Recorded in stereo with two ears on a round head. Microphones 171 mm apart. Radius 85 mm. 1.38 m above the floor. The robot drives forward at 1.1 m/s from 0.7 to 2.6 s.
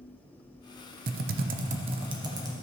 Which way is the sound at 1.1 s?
45° right (ahead or behind).